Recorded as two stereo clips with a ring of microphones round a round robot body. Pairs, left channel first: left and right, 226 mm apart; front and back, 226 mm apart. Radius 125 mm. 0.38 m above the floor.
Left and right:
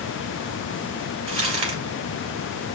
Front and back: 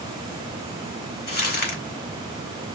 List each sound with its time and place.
1.3 s crumpling: 25° right, 2 m